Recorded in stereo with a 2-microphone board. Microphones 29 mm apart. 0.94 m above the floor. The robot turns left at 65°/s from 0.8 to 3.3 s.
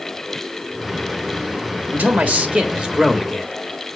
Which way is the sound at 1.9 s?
90° right.